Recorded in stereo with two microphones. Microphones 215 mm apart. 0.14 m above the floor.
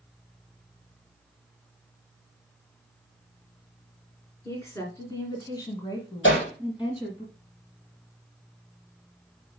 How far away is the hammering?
About 4 m.